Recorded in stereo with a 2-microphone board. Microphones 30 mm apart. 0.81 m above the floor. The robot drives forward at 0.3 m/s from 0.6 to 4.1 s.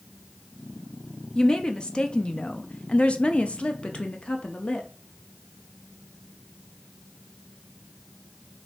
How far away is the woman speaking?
About 0.7 m.